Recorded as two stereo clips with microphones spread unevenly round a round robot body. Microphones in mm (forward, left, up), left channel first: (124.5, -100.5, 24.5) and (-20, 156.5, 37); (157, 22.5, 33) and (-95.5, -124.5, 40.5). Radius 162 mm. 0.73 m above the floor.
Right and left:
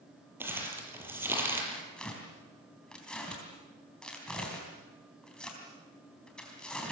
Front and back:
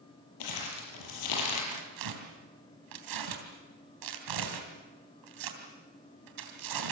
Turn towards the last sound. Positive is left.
turn(degrees=-150)